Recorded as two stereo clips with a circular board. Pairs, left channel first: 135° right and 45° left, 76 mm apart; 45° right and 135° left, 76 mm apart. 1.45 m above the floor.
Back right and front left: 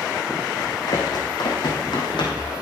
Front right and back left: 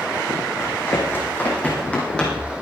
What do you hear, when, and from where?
0.6 s running footsteps: 105° right, 5 m; by 2.5 s 125° right, 4.5 m